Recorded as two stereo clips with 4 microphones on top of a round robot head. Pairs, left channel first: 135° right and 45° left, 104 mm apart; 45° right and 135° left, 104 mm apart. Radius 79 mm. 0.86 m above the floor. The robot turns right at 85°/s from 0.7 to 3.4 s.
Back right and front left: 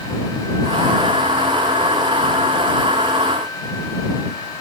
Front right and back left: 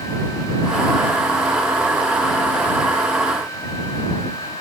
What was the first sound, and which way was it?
Only background noise.